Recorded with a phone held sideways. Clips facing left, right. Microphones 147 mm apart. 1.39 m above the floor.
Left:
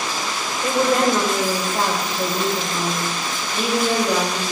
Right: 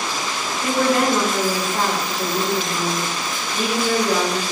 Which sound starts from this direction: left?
A woman speaking, at 0.6 s.